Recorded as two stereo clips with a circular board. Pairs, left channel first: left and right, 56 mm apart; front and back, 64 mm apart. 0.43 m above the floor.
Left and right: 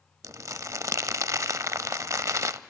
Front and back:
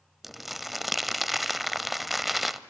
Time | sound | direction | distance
0.2 | crumpling | 95° right | 0.5 m